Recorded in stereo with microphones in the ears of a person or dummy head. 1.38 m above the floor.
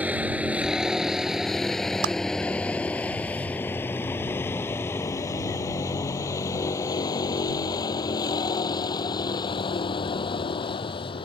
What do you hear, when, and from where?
0.0 s a vehicle: 10° right (ahead or behind); by 11.3 s 30° left (ahead or behind)
2.0 s a clap: 75° right (ahead or behind)